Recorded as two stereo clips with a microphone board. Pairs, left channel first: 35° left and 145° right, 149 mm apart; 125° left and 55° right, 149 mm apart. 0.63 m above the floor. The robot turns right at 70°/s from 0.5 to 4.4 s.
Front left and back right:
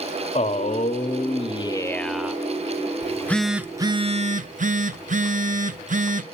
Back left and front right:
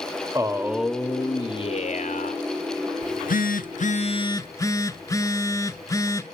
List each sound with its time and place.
0.3 s a man speaking: 10° left, 0.9 m; by 2.4 s 140° left, 0.9 m
3.0 s a phone buzzing: 95° left, 0.8 m; by 6.2 s 170° right, 0.8 m